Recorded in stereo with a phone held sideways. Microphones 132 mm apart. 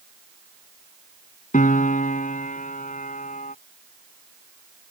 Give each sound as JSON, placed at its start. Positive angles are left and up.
{"t": 1.5, "sound": "a piano", "side_deg": 90}